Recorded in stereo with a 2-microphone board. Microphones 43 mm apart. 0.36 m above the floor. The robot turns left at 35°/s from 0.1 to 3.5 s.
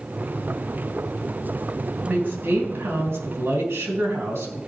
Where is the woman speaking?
35° right, 3.5 m; by 4.6 s 85° right, 3.5 m.